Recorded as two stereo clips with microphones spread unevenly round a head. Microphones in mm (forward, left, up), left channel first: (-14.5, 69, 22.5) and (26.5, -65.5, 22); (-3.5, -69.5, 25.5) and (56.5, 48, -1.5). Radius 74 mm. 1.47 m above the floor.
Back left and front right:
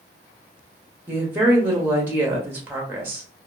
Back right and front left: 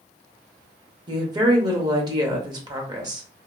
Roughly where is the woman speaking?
Ahead.